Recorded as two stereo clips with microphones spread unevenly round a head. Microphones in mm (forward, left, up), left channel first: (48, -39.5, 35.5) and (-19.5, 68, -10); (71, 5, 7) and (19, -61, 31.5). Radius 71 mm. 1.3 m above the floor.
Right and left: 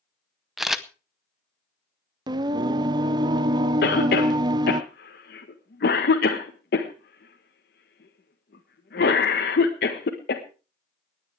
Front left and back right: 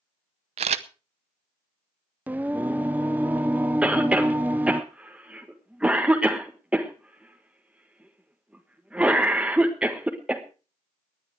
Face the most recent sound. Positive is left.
turn(degrees=-50)